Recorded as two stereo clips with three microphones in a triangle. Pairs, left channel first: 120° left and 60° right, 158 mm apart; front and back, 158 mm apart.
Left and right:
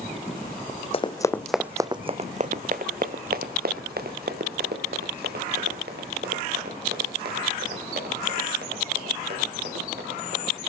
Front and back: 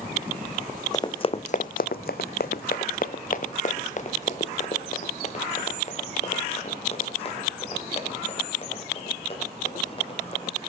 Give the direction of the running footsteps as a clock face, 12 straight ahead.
10 o'clock.